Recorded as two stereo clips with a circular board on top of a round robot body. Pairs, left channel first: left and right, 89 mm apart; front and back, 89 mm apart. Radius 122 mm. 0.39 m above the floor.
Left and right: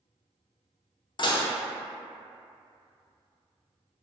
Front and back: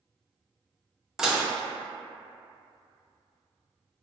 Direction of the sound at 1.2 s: 95° left.